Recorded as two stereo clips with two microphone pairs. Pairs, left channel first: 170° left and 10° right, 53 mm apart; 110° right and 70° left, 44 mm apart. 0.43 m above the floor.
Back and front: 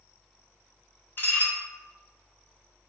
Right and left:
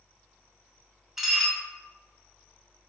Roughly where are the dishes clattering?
Behind left.